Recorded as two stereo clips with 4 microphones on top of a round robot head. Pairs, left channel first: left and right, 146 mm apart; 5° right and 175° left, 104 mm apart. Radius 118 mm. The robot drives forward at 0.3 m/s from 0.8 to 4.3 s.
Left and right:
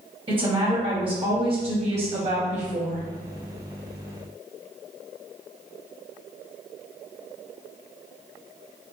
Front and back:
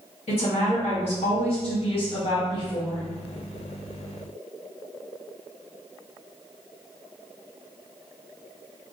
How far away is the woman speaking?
About 1.3 m.